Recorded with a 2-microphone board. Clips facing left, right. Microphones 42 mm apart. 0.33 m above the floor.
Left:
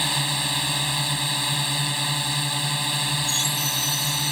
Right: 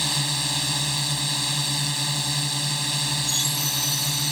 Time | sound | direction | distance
0.0 | a drone | 25° left (ahead or behind) | ?